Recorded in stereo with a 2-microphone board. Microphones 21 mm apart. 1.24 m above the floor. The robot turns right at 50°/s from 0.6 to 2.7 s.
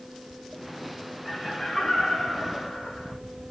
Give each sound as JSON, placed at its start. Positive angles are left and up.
{"t": 1.2, "sound": "laughter", "azimuth_deg": 5, "distance_m": 1.6}